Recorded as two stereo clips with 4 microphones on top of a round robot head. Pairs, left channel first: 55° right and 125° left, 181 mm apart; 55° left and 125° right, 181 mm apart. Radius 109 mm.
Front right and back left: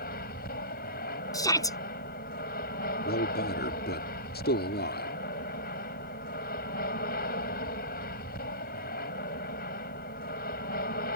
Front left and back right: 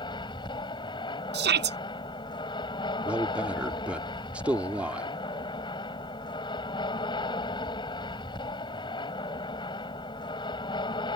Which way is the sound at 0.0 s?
15° right.